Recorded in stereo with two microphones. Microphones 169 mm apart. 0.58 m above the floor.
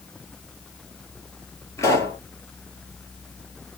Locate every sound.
1.8 s a pop: 15° left (ahead or behind), 2 m